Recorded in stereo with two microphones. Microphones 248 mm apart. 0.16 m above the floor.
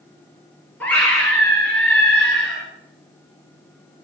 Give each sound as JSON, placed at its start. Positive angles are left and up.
{"t": 0.8, "sound": "a scream", "side_deg": 5, "distance_m": 2.5}